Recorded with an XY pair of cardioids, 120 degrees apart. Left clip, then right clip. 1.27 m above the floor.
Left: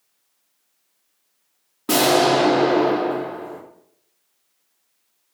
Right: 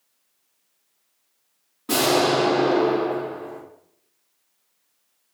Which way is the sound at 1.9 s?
45° left.